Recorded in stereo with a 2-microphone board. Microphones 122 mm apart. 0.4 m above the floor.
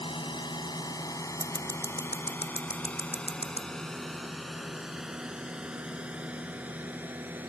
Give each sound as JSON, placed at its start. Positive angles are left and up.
{"t": 0.0, "sound": "a drone", "side_deg": 40}
{"t": 1.4, "sound": "scissors", "side_deg": 55}